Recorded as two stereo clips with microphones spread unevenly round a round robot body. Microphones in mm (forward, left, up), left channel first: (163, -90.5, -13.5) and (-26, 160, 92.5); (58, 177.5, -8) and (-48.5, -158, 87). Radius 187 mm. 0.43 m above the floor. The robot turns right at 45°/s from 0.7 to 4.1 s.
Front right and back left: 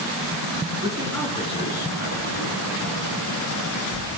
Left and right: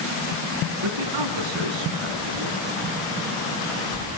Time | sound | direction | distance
0.8 | a man speaking | 155° right | 5 m